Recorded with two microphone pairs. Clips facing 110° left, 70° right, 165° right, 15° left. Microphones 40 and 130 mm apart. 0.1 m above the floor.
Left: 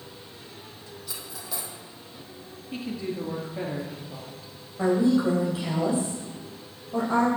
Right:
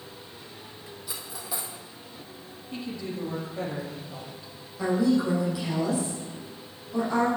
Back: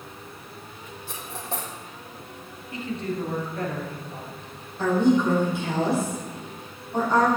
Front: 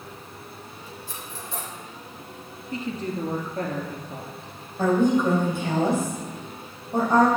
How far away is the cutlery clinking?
About 2.5 m.